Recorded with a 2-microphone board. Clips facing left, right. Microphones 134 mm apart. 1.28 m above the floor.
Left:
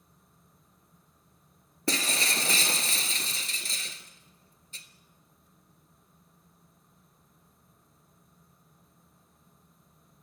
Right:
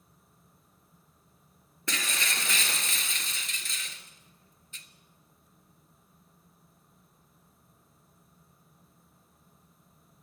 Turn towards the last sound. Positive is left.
turn(degrees=35)  # may be behind; listen again after turning